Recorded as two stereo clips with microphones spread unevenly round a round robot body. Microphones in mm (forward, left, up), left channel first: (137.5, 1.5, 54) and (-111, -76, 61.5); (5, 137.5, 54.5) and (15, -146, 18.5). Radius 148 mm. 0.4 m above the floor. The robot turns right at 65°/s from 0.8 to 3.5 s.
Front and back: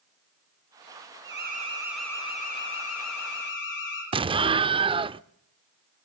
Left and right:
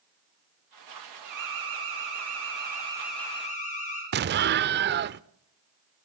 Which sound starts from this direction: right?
An explosion, at 4.1 s.